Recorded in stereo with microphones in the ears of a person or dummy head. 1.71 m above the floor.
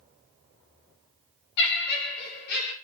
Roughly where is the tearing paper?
I don't hear tearing paper.